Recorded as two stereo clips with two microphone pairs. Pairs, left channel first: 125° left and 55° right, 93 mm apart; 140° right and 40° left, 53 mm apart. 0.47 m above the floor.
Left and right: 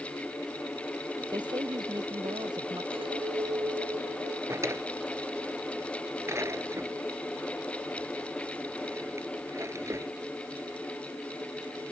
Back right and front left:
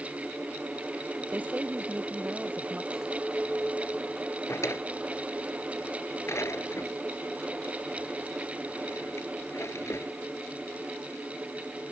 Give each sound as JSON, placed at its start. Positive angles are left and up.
{"t": 1.3, "sound": "a woman speaking", "azimuth_deg": -20}
{"t": 2.9, "sound": "a clink", "azimuth_deg": -40}
{"t": 4.5, "sound": "a drawer", "azimuth_deg": -115}